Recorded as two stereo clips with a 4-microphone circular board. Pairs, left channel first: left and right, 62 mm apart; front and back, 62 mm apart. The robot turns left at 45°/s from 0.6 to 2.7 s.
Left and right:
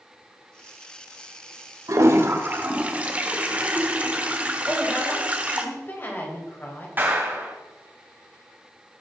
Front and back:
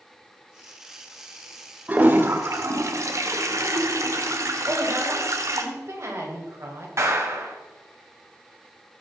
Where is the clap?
145° right, 2.5 m.